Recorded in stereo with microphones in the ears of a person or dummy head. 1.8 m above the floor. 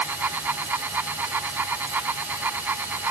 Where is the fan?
10° right (ahead or behind).